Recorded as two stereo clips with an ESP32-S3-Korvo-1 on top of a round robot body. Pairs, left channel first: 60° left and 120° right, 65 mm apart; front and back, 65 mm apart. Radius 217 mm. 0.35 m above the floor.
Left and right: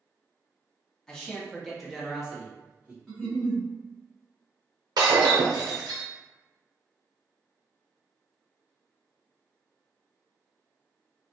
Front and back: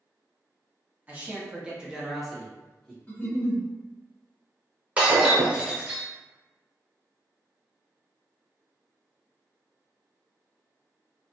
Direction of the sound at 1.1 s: 130° left.